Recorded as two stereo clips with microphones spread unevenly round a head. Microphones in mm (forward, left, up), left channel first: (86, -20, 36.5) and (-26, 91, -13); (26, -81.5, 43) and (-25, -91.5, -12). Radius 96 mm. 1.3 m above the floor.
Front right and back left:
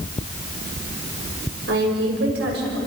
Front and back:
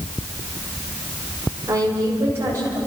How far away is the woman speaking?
About 7 m.